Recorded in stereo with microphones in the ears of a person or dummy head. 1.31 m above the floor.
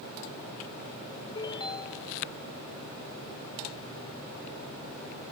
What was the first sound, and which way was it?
A ringtone, 25° left (ahead or behind).